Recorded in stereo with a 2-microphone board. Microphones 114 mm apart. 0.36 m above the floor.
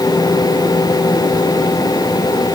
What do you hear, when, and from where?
Only background noise.